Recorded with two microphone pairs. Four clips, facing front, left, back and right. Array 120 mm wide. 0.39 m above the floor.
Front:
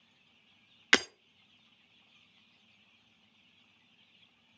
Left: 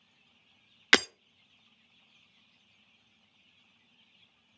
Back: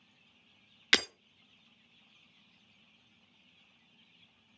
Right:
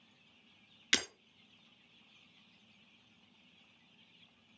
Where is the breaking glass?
75° left, 0.5 m.